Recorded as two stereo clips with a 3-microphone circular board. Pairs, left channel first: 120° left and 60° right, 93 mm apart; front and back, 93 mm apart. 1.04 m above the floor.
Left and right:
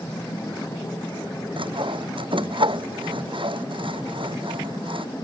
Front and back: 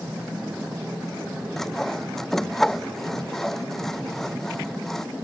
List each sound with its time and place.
1.6 s sawing: 85° right